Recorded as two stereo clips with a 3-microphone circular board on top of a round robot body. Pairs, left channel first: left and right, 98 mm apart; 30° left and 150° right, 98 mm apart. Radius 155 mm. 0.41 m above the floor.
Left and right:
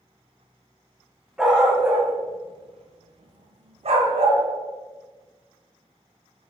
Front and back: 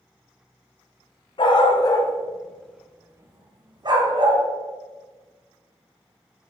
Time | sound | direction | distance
1.4 | a dog barking | 5° right | 1.9 m